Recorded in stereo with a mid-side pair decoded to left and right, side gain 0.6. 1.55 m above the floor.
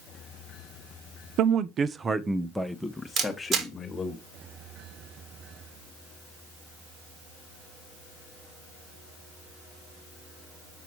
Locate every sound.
1.4 s a man speaking: 60° right, 0.9 m; by 4.2 s 25° left, 2 m
3.2 s a camera shutter: 50° right, 2.5 m